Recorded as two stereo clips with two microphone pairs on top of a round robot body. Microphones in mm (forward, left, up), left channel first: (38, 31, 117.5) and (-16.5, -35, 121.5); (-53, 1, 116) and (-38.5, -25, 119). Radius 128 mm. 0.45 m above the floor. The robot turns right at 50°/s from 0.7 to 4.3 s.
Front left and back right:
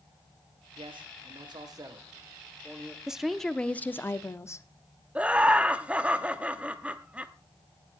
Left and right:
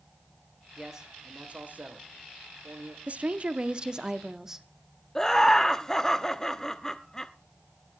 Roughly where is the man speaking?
Behind right.